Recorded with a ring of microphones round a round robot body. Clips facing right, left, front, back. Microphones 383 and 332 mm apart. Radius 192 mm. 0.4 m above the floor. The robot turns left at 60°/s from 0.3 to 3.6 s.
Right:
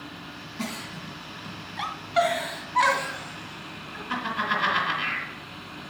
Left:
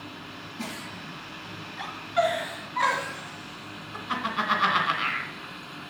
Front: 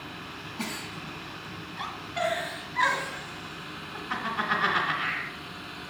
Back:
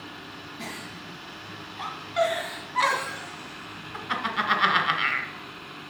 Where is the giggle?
25° right, 2.5 m; by 5.3 s 155° left, 2.5 m.